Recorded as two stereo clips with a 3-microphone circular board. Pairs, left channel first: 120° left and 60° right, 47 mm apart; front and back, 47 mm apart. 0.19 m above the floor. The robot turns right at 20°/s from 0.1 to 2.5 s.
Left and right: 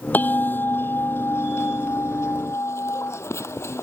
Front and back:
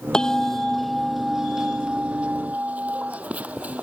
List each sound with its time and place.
0.1 s a bell: 75° left; by 3.8 s 120° left